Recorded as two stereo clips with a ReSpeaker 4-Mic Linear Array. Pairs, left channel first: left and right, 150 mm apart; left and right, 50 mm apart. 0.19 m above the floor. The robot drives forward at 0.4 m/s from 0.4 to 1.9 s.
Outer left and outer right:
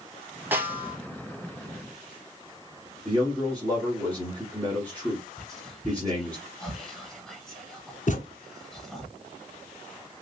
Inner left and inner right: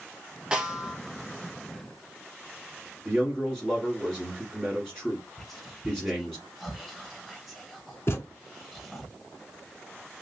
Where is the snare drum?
15° right (ahead or behind), 0.7 m; by 1.0 s 10° right (ahead or behind), 0.9 m.